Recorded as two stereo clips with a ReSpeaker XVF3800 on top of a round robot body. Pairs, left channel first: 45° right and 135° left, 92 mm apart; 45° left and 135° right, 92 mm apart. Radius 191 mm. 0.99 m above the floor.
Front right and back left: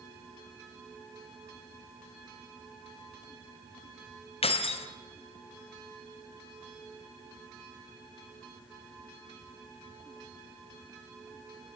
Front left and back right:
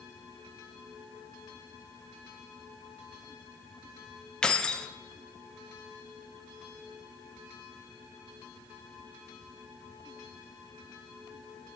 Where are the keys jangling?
35° right, 0.6 m.